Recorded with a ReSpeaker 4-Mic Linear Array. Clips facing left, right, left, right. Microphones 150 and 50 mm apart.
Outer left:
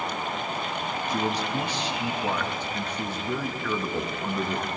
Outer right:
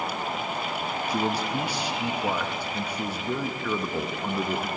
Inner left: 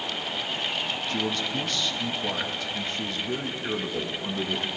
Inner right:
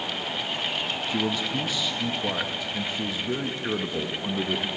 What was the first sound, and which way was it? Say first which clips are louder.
A man speaking: outer right 1 dB, inner right 2 dB; 10° right (ahead or behind).